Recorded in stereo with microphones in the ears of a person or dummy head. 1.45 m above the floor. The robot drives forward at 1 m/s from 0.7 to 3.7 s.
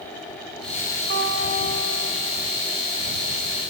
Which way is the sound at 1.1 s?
60° right (ahead or behind).